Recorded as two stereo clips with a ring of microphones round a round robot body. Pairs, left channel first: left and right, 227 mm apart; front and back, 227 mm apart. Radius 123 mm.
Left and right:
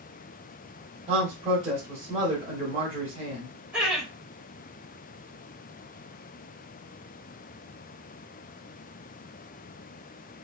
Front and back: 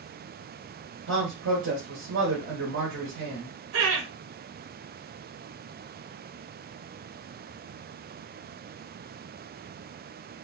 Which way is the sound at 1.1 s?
150° right.